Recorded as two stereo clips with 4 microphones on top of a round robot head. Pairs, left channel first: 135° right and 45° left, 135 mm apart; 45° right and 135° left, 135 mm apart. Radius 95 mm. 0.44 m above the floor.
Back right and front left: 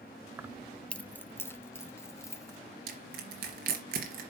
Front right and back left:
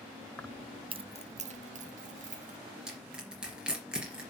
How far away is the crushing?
About 3 m.